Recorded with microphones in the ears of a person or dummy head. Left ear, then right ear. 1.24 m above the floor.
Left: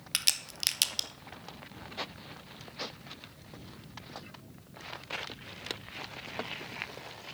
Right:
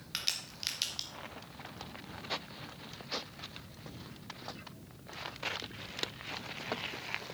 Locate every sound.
0.1 s a crack: 25° left (ahead or behind), 0.8 m